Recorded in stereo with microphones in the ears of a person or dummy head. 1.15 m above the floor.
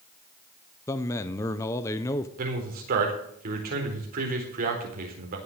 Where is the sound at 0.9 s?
15° left (ahead or behind), 0.6 m.